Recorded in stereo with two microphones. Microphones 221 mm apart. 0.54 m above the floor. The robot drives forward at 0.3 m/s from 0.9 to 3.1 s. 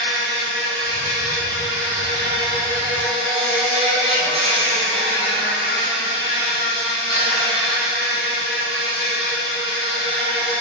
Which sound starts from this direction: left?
An insect, at 0.0 s.